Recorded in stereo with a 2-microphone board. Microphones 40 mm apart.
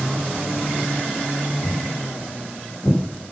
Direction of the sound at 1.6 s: 60° left (ahead or behind).